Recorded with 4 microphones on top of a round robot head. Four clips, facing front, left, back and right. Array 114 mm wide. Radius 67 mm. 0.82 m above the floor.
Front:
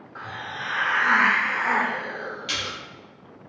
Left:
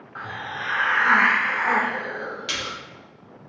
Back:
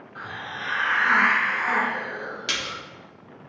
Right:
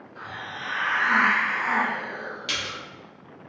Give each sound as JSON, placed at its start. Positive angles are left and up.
{"t": 0.1, "sound": "a hiss", "azimuth_deg": 70, "distance_m": 0.6}
{"t": 2.5, "sound": "a splash", "azimuth_deg": 180, "distance_m": 1.2}